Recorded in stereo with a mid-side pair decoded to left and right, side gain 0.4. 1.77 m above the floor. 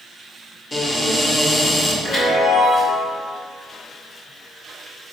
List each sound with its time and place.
0.7 s a cupboard door: 25° left, 1.4 m
2.0 s a chime: 60° left, 2.0 m